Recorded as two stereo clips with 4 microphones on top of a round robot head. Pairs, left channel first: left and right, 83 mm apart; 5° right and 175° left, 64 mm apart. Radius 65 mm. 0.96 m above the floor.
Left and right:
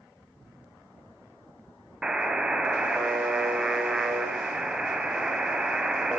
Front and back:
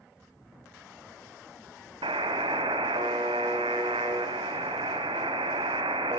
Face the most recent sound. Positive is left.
turn(degrees=-170)